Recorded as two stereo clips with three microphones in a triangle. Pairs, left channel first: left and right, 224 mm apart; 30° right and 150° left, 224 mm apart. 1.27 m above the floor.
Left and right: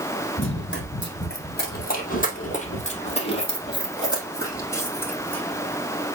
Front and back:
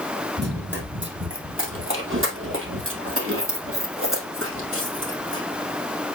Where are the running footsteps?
115° left, 2.5 m; by 5.4 s 175° left, 3 m.